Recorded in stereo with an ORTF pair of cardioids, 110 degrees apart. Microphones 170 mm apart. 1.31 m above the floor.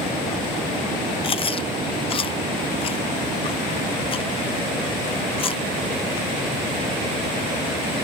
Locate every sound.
1.2 s chewing: 35° left